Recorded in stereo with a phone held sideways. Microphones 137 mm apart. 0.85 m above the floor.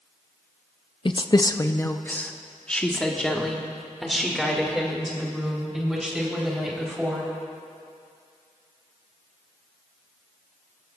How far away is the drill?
I don't hear a drill.